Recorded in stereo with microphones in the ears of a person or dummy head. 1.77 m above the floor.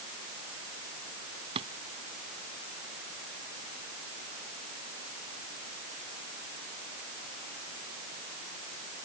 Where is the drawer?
30° right (ahead or behind).